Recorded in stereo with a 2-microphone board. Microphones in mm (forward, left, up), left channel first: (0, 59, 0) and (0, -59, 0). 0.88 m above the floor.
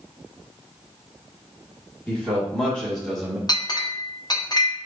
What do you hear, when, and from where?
2.1 s a man speaking: 10° left (ahead or behind), 1.7 m; by 3.4 s centre (ahead or behind), 1.1 m
3.5 s a clink: 35° left (ahead or behind), 0.6 m